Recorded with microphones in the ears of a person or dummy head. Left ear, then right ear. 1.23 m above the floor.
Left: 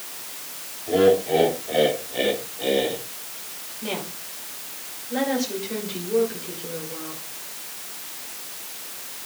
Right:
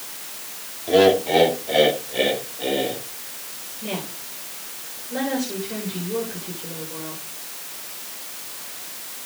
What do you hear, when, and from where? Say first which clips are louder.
0.9 s laughter: right 2 dB; 35° right (ahead or behind), 2.5 m; by 3.0 s 20° left (ahead or behind), 2.5 m
3.8 s a woman speaking: even; 20° left (ahead or behind), 6 m